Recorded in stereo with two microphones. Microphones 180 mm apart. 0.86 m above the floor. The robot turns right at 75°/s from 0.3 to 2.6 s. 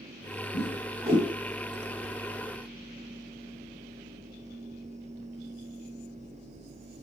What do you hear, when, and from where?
0.5 s a whoosh: 75° right (ahead or behind), 4.5 m; by 1.3 s 15° right (ahead or behind), 4.5 m